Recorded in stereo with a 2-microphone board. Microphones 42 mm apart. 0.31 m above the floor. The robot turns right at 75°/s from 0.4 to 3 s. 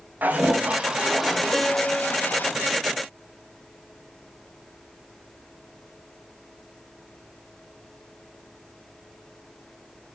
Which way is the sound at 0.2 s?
70° right.